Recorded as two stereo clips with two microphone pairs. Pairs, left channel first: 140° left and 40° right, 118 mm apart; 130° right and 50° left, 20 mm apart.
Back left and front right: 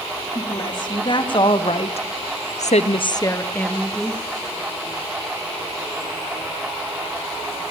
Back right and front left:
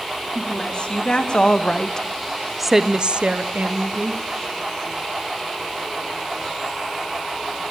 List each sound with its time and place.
0.3 s a woman speaking: 170° right, 3.5 m; by 4.2 s 50° left, 2 m